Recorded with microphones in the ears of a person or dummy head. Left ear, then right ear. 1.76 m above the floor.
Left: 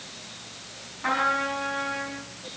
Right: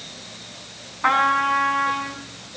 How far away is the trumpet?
About 5 m.